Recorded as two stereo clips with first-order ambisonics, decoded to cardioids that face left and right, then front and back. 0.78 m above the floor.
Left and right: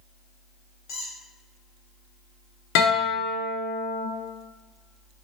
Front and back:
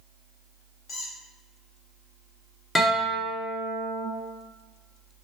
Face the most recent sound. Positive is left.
turn(degrees=80)